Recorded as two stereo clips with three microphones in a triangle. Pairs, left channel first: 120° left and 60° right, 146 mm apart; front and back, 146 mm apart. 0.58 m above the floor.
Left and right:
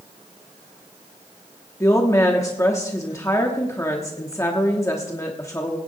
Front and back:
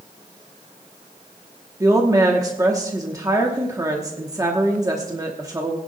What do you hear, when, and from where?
1.8 s a woman speaking: 155° left, 1.0 m